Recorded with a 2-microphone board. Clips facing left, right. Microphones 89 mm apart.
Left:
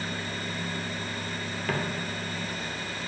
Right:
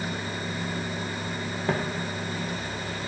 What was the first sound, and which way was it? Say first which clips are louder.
Footsteps: right 3 dB; 25° right (ahead or behind).